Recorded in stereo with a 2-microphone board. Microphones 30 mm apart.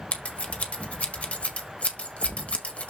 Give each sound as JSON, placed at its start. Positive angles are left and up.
{"t": 0.1, "sound": "scissors", "side_deg": 50, "distance_m": 1.4}